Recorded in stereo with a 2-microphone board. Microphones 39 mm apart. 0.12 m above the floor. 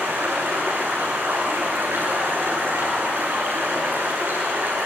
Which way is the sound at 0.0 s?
80° right.